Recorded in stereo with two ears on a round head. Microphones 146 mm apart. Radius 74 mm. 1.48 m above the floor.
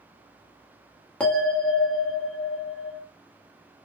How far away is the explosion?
I don't hear an explosion.